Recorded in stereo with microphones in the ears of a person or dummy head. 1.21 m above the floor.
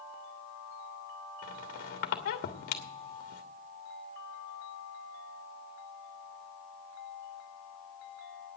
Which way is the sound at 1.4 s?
50° left (ahead or behind).